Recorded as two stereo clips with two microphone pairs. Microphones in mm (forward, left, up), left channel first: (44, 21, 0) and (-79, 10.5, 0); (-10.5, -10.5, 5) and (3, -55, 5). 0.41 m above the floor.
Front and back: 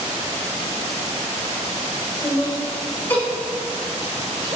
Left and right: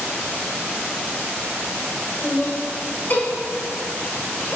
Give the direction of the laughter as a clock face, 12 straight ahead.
10 o'clock.